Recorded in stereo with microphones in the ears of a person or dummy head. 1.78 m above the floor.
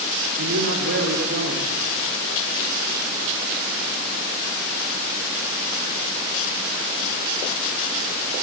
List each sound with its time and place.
0.4 s a man speaking: 85° right, 4.5 m